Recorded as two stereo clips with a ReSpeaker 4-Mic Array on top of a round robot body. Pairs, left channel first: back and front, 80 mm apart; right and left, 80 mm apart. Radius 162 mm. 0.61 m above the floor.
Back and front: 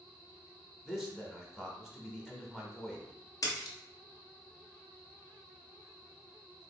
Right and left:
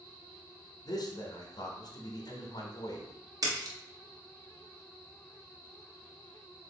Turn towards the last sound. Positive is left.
turn(degrees=135)